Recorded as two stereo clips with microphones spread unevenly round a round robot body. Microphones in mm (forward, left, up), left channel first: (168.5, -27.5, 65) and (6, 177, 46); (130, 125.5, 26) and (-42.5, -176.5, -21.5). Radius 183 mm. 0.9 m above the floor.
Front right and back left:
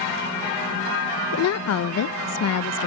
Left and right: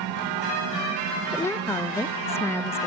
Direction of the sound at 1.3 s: 25° right.